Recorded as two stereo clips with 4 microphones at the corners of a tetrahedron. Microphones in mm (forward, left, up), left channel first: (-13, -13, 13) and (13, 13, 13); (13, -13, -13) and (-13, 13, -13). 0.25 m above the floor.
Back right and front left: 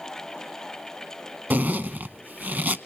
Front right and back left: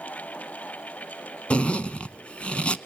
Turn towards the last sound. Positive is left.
turn(degrees=10)